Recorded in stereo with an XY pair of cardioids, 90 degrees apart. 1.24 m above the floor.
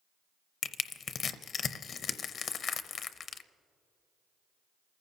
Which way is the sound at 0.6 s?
65° left.